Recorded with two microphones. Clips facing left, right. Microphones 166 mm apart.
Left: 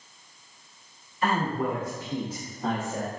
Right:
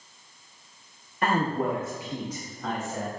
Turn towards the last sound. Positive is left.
turn(degrees=40)  # may be behind; listen again after turning